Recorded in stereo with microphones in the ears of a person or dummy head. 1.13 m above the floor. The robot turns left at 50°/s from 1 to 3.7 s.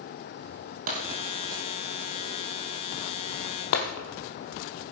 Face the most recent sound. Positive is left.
turn(degrees=60)  # may be behind; listen again after turning